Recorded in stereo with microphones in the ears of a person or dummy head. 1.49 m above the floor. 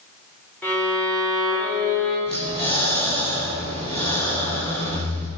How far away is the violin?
About 5.5 m.